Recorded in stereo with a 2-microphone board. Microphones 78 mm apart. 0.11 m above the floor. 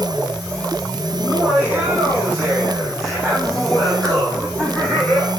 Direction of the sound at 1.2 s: 20° right (ahead or behind).